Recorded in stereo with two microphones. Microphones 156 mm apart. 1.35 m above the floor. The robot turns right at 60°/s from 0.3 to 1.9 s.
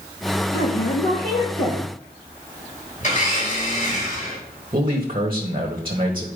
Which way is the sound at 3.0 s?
50° left (ahead or behind).